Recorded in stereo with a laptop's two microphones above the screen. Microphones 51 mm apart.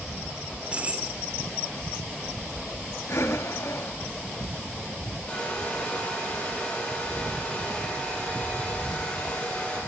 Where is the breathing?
65° left (ahead or behind), 1.6 m.